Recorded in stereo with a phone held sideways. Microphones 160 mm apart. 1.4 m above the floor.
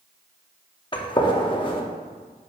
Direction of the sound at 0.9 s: 30° left (ahead or behind).